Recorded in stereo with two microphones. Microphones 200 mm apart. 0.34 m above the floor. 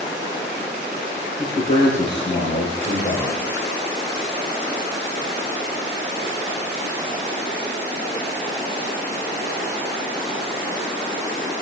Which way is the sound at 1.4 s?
40° left (ahead or behind).